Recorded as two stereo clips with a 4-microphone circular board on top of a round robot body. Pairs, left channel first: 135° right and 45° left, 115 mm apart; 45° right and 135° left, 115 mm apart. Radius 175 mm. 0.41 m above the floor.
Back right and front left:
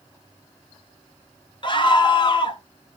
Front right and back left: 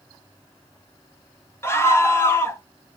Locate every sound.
1.6 s a scream: 105° right, 1.4 m